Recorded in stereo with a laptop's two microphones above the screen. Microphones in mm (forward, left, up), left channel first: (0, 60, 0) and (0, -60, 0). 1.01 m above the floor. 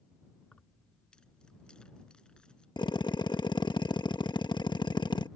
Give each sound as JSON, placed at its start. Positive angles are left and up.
{"t": 0.4, "sound": "keys jangling", "side_deg": 5}
{"t": 2.8, "sound": "a drill", "side_deg": 40}